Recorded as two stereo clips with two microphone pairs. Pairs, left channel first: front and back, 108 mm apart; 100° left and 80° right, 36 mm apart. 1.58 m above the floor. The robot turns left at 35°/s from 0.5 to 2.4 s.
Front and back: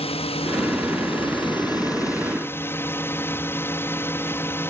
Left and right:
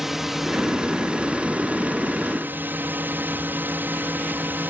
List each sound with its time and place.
0.0 s a drone: straight ahead; by 4.7 s 65° right